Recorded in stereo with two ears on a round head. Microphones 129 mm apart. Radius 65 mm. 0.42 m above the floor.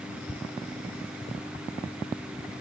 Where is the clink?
I don't hear a clink.